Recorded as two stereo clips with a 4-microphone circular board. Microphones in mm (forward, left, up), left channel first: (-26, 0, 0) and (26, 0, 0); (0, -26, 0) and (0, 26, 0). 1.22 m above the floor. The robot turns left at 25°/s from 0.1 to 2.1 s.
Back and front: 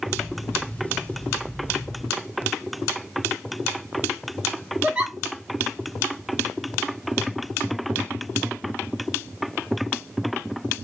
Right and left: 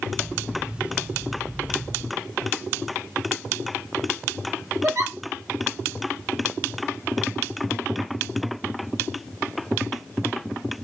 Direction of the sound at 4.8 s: 75° left.